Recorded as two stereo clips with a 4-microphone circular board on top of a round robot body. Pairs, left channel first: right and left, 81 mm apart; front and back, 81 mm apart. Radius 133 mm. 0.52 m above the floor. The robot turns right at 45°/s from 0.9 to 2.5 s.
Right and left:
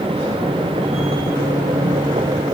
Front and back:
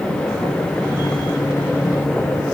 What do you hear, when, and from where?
Only background noise.